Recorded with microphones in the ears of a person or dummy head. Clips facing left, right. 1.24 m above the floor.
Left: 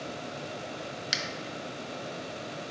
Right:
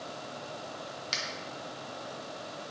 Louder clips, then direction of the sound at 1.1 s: Left 3 dB; 20° left (ahead or behind).